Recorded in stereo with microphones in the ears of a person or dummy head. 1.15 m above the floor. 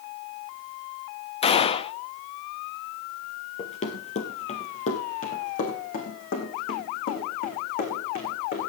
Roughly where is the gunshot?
Left.